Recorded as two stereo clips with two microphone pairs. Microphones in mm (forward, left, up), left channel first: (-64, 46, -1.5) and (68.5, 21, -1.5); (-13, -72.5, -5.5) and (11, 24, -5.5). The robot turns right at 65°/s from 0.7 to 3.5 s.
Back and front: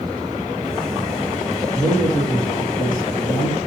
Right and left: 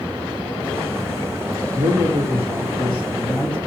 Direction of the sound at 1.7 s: 100° left.